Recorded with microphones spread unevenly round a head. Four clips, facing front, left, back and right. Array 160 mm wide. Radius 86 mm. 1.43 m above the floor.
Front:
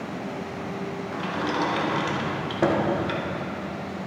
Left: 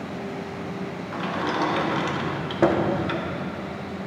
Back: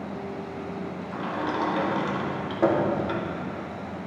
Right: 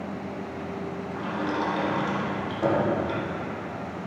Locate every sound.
1.1 s a sliding door: 60° left, 1.5 m